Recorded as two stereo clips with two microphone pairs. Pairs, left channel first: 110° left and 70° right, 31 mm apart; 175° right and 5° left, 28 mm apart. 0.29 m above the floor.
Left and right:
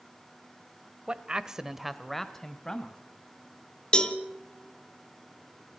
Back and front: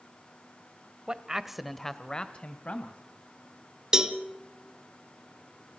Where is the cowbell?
60° left, 1.3 m.